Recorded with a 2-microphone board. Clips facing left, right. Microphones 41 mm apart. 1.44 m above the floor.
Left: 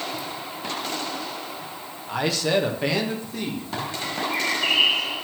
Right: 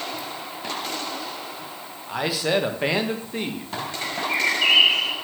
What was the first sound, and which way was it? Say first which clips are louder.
A man speaking: even; centre (ahead or behind).